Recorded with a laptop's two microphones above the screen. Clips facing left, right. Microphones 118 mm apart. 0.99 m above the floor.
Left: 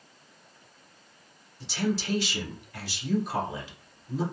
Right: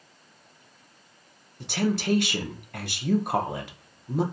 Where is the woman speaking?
60° right (ahead or behind), 0.6 m.